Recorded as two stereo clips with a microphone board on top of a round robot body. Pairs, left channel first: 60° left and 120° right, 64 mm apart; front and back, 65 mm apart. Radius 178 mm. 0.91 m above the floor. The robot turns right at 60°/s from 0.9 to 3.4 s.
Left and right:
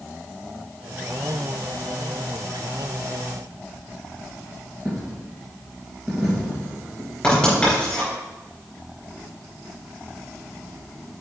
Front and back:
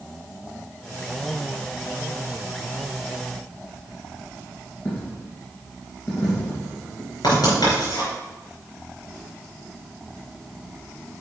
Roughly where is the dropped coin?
Ahead right.